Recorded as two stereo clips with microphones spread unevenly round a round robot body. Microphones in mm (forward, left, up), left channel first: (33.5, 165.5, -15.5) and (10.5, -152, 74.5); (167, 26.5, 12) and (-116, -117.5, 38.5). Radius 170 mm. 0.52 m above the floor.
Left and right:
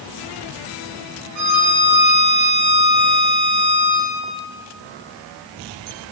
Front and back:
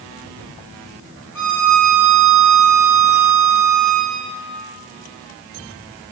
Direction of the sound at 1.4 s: 120° right.